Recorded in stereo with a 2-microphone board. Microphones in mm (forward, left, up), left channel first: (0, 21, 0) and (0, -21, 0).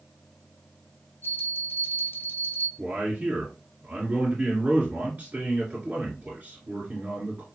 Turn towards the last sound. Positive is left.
turn(degrees=-35)  # may be behind; listen again after turning